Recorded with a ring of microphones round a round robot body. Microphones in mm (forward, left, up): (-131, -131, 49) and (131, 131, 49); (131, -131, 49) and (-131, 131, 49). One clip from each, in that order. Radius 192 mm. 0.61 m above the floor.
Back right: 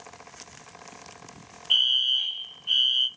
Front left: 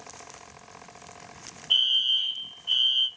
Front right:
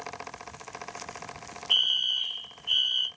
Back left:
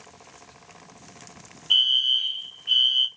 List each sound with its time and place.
1.7 s a fire alarm: 165° right, 1.8 m